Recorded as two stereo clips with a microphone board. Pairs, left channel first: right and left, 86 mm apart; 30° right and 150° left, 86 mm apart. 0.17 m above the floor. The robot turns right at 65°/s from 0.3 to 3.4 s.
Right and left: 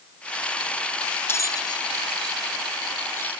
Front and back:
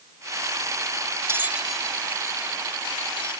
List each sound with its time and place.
1.3 s a bell: 150° right; by 3.4 s 15° right